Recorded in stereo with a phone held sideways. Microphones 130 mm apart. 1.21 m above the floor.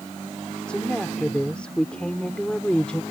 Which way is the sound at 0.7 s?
5° left (ahead or behind).